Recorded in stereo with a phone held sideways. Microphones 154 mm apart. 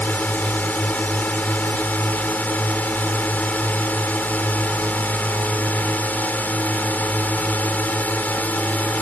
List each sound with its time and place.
0.0 s a drone: 10° left (ahead or behind)